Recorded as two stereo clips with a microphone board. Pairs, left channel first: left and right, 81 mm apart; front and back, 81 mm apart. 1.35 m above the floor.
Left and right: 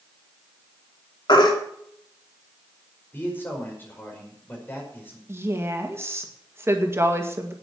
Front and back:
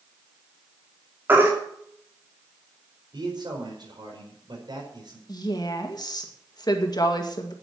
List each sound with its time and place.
1.3 s a baby crying: 115° left, 2.5 m
3.1 s a man speaking: 155° left, 5 m
5.3 s a woman speaking: 30° right, 2 m